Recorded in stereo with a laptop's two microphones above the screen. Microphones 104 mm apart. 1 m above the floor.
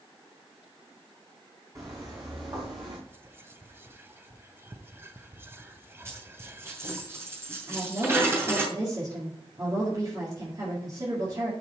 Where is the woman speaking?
40° right (ahead or behind), 2.5 m.